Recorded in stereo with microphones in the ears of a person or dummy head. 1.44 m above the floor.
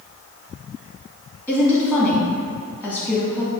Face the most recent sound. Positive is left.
turn(degrees=10)  # may be behind; listen again after turning